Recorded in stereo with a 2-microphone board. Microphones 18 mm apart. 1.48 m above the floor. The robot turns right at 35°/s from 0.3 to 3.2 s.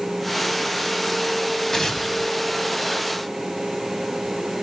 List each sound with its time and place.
1.7 s tearing paper: 25° left (ahead or behind), 1.4 m